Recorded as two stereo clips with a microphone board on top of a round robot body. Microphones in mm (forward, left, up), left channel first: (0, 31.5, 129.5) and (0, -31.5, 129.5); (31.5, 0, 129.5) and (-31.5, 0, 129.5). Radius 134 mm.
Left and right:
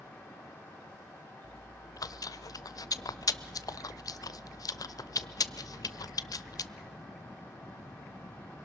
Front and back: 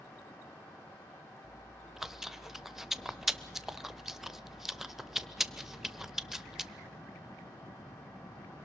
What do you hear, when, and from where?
1.4 s chewing: 95° left, 0.7 m